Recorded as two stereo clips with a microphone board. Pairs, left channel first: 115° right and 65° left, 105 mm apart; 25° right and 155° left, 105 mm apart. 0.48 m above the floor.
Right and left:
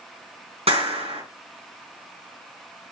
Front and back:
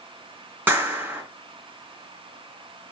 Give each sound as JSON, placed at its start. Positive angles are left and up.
{"t": 0.7, "sound": "a clap", "azimuth_deg": 85, "distance_m": 4.0}